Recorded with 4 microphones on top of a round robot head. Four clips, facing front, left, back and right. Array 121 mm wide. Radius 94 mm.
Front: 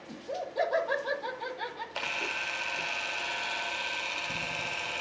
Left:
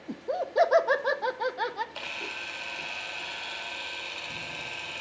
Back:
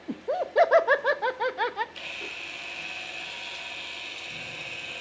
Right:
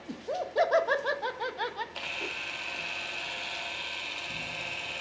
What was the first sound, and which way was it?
Laughter, 160° left.